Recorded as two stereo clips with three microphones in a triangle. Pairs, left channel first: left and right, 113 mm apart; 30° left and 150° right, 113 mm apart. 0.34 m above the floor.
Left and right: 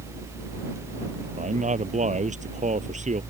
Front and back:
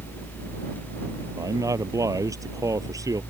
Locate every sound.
1.4 s a man speaking: 85° right